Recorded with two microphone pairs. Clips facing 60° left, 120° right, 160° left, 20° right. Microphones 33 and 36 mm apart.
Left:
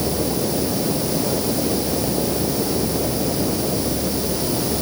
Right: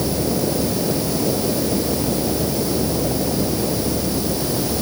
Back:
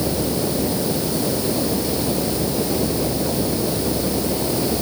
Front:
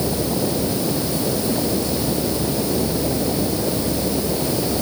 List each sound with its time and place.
Only background noise.